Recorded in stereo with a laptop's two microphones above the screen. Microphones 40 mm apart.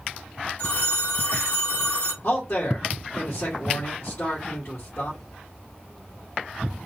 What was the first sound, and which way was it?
A phone ringing, 40° left (ahead or behind).